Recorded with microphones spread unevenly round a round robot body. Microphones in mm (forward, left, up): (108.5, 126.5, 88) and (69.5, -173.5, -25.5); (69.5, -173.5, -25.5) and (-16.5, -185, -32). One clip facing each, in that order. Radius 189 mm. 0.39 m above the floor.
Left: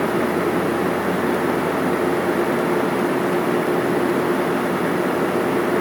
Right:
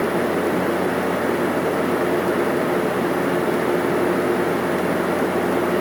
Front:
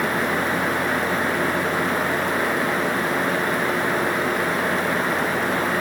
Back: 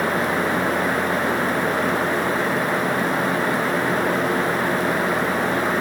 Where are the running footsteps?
I don't hear running footsteps.